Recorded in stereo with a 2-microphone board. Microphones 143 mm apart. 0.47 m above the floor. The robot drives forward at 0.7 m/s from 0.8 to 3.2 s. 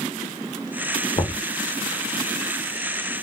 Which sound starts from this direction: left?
Knocking, at 1.2 s.